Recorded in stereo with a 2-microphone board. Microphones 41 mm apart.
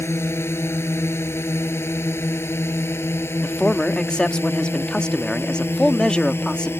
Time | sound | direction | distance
0.0 | a drone | 80° left | ?
3.4 | a man speaking | 20° left (ahead or behind) | ?